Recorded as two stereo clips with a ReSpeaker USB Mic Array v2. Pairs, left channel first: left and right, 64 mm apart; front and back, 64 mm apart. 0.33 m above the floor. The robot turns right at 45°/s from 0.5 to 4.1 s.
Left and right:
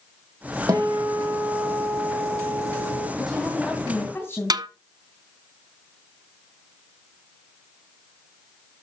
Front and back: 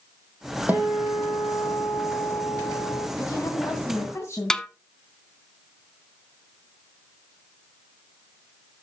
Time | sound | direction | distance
0.7 | a guitar | 115° right | 5 m
3.2 | a woman speaking | 5° right | 2.5 m
4.5 | a snare drum | 80° right | 0.9 m